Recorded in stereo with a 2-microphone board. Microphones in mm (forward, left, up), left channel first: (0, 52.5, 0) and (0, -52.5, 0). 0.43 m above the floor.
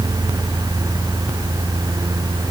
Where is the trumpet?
No trumpet in this recording.